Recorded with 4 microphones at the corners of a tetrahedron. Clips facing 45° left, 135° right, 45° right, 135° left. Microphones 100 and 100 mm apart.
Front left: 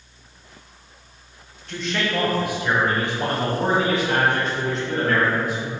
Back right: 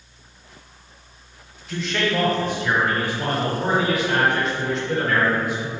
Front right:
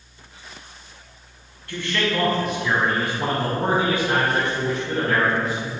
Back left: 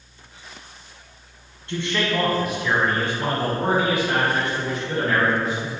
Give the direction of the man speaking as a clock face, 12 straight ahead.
7 o'clock.